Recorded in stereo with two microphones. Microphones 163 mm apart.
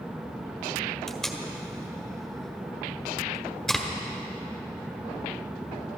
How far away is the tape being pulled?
About 1.5 m.